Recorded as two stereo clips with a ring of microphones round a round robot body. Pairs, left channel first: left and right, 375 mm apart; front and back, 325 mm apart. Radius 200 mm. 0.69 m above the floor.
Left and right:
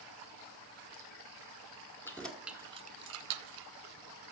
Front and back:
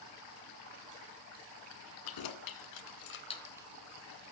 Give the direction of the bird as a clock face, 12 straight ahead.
No bird in this recording.